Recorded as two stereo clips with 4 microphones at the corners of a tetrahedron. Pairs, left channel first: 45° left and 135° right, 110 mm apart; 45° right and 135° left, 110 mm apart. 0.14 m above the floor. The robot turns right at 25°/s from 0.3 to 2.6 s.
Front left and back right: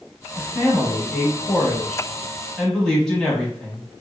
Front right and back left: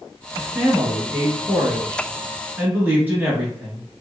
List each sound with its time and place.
0.4 s a man speaking: 60° left, 1.0 m; by 3.8 s 115° left, 1.0 m